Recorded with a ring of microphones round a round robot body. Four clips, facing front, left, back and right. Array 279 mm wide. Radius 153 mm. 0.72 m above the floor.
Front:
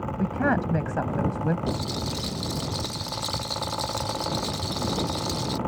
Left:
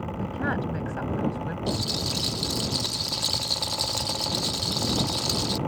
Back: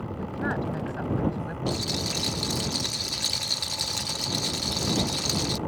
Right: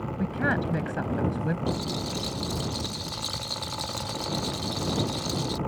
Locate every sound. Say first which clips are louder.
0.2 s a woman speaking: right 2 dB, front 6 dB; 15° right
1.7 s a rattle: even, front 1 dB; 115° left